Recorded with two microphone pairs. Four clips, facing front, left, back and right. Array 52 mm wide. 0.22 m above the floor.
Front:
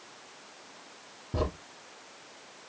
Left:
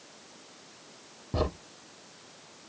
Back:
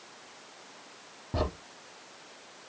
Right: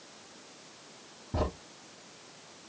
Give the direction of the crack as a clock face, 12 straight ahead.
8 o'clock.